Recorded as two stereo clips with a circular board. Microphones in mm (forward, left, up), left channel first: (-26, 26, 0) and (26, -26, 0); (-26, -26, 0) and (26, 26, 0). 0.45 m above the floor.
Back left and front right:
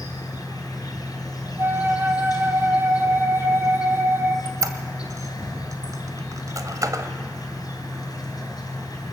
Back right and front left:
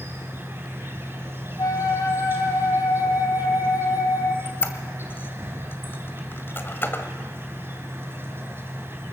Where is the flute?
100° right, 1.6 m.